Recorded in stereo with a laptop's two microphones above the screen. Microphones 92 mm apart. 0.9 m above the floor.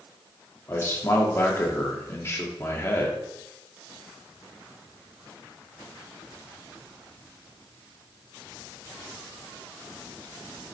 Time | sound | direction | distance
0.7 | a man speaking | 30° left (ahead or behind) | 1.7 m